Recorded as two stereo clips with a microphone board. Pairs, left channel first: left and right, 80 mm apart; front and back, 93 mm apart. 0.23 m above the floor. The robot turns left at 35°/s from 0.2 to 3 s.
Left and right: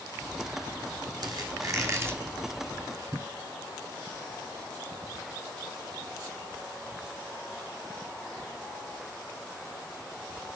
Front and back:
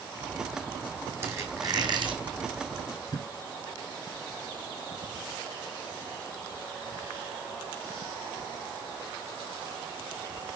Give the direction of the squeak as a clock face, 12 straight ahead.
4 o'clock.